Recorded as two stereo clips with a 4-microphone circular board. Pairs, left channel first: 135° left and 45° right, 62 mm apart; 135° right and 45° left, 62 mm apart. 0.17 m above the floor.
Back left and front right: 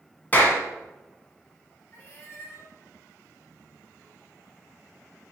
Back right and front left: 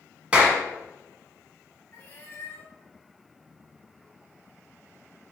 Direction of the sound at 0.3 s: 100° left.